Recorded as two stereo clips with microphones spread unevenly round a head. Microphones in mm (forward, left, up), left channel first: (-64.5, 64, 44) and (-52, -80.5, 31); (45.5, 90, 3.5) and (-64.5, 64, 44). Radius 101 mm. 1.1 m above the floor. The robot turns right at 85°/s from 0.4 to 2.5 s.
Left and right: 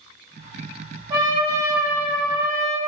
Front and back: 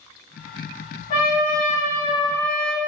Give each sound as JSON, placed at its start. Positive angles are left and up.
{"t": 1.1, "sound": "a trumpet", "azimuth_deg": -20, "distance_m": 0.7}